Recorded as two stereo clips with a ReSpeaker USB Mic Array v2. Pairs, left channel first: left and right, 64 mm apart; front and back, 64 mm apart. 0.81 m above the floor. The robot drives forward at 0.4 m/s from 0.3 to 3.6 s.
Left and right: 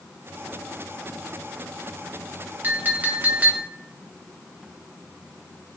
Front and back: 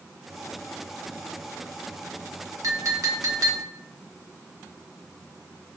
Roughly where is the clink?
Behind right.